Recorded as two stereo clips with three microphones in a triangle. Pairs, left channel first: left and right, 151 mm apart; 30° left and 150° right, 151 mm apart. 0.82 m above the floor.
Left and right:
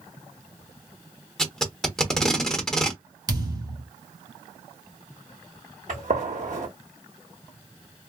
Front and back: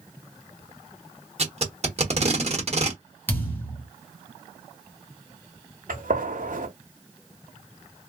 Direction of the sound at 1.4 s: 175° left.